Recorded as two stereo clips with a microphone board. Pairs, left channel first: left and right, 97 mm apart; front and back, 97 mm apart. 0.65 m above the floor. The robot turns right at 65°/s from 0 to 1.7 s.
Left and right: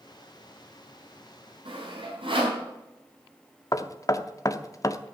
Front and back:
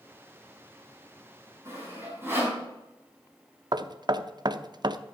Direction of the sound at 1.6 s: 120° right.